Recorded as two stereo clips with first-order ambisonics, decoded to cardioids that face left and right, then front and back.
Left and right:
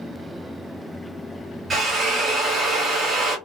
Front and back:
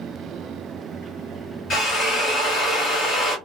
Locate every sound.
1.7 s a drill: 25° right, 1.5 m